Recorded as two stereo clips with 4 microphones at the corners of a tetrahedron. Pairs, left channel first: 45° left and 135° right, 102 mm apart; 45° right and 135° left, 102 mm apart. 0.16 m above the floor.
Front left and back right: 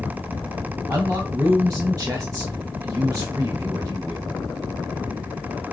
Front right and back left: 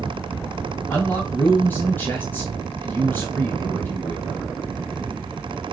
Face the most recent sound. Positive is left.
turn(degrees=-100)